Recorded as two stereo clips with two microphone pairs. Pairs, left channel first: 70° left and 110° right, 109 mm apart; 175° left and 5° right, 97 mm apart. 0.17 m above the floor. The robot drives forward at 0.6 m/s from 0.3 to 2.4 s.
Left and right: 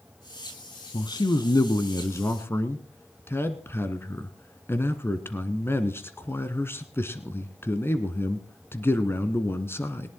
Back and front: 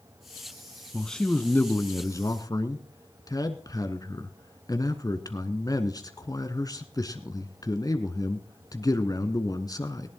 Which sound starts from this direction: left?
A man speaking, at 0.9 s.